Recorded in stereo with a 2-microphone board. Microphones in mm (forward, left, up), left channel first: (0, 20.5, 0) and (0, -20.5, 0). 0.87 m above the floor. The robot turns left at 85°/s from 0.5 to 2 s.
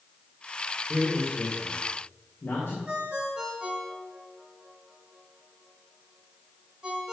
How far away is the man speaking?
About 2.5 m.